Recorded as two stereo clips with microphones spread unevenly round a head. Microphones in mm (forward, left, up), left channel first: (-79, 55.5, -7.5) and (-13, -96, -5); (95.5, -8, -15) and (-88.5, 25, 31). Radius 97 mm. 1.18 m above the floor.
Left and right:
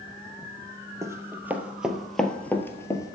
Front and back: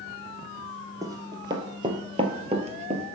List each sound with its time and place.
1.0 s running footsteps: 135° right, 1.8 m; by 3.1 s 175° left, 1.6 m